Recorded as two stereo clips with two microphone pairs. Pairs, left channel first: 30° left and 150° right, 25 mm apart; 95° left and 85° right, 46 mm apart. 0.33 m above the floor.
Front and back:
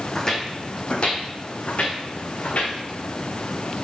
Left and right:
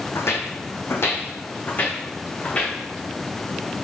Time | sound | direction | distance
0.1 | footsteps | 105° left | 1.0 m